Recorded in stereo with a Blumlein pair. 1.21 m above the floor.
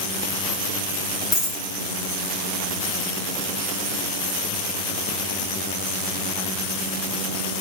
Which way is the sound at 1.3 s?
25° left.